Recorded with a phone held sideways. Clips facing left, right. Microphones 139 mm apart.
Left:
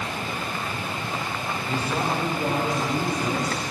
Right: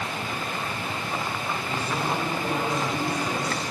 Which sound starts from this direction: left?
A man speaking, at 1.7 s.